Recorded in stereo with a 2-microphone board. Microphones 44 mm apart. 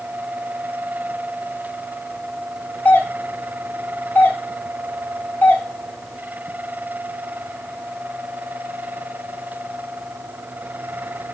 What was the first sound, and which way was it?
A doorbell, 45° left (ahead or behind).